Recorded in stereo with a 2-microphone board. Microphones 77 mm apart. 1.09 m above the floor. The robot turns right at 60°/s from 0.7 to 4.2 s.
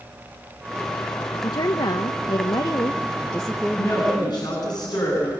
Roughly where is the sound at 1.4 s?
Ahead left.